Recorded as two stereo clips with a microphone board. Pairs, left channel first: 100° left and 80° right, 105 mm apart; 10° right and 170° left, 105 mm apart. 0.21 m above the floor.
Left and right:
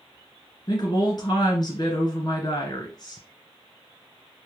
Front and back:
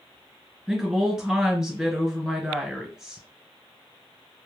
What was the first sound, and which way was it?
A woman speaking, 85° left.